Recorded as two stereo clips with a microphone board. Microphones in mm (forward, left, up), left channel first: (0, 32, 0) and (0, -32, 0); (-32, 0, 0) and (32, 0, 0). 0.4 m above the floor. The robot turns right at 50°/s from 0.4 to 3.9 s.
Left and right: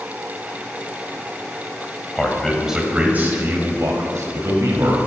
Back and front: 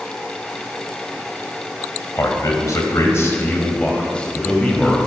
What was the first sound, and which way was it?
A man speaking, 160° left.